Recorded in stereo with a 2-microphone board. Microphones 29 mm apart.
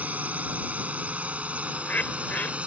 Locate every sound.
0.0 s a drone: 60° right (ahead or behind); by 2.7 s 45° right (ahead or behind)
1.7 s a bird: 80° left